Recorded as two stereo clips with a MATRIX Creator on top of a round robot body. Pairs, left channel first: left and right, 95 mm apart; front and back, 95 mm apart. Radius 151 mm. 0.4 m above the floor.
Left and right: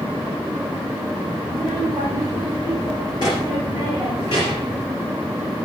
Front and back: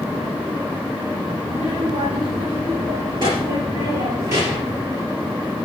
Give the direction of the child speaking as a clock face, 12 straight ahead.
7 o'clock.